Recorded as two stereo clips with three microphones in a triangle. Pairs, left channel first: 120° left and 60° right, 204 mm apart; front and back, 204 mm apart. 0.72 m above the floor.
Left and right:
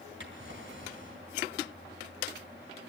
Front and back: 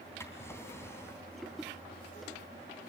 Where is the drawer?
75° right, 3 m.